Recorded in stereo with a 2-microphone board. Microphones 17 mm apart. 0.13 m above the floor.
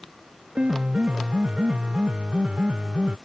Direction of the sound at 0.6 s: 85° right.